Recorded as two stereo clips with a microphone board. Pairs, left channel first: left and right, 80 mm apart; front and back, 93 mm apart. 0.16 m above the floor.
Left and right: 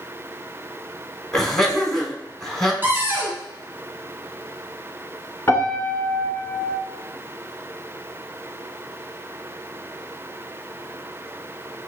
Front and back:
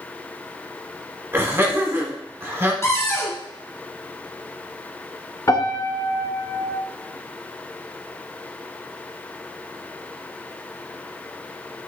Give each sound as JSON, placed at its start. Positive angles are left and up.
{"t": 1.3, "sound": "laughter", "azimuth_deg": 175, "distance_m": 1.2}
{"t": 2.8, "sound": "a cupboard door", "azimuth_deg": -45, "distance_m": 1.1}
{"t": 5.5, "sound": "a piano", "azimuth_deg": 40, "distance_m": 1.0}